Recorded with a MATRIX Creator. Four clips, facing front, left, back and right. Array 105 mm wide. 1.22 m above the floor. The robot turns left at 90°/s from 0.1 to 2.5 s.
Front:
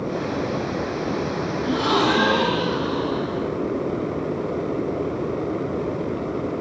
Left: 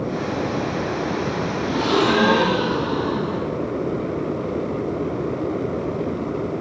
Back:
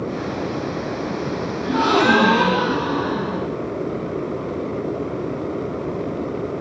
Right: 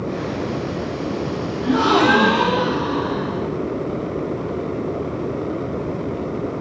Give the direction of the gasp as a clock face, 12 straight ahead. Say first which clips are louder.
Right 4 dB, back 4 dB; 4 o'clock.